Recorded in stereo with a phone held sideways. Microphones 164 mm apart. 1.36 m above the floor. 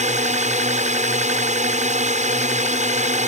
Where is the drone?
45° right (ahead or behind).